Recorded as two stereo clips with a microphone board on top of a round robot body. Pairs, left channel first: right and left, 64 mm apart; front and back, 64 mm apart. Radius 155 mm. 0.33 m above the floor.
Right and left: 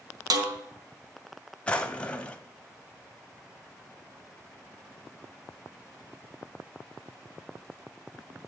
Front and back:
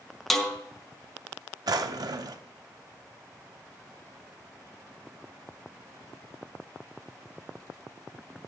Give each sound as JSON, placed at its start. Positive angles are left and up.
{"t": 0.3, "sound": "a snare drum", "azimuth_deg": 85, "distance_m": 2.0}
{"t": 1.7, "sound": "a drawer", "azimuth_deg": -165, "distance_m": 0.5}